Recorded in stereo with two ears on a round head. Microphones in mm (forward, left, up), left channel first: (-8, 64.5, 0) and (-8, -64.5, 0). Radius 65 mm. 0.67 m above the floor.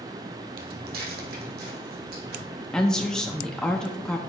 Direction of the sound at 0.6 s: 65° right (ahead or behind).